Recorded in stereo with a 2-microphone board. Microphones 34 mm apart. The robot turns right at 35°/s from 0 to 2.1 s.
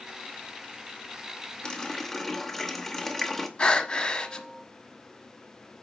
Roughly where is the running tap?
Left.